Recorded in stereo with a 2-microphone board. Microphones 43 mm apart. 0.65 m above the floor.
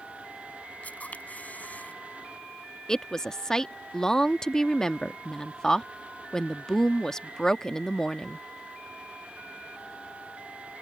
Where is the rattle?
I don't hear a rattle.